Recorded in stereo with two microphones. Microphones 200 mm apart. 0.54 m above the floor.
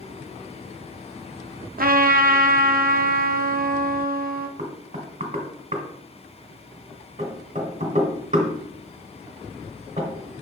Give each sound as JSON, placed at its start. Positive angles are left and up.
{"t": 1.8, "sound": "a trumpet", "side_deg": -45, "distance_m": 0.5}
{"t": 4.6, "sound": "knocking", "side_deg": -35, "distance_m": 1.6}